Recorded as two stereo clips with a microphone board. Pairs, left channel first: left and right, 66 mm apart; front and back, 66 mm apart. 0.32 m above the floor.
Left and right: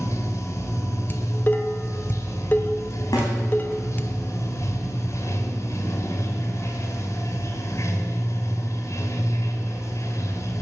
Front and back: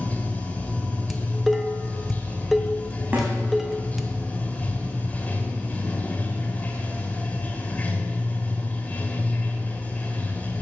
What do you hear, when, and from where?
0.0 s running water: 65° left, 2 m
1.1 s dishes clattering: 95° left, 0.9 m
3.1 s a snare drum: 120° left, 4.5 m